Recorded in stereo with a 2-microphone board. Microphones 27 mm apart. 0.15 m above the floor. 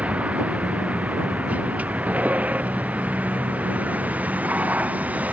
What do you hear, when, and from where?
0.0 s a vehicle: 60° right (ahead or behind); by 5.3 s 85° right